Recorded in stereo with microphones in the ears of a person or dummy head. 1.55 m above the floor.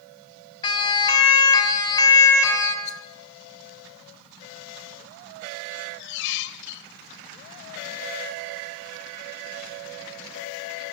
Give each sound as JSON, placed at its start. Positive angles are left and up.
{"t": 0.6, "sound": "a siren", "side_deg": 30, "distance_m": 6.0}
{"t": 2.9, "sound": "a rattle", "side_deg": 40, "distance_m": 3.5}
{"t": 5.7, "sound": "a squeak", "side_deg": 70, "distance_m": 2.0}